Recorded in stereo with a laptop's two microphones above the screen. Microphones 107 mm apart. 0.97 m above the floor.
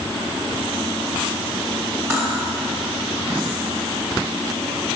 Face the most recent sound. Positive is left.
turn(degrees=-30)  # may be behind; listen again after turning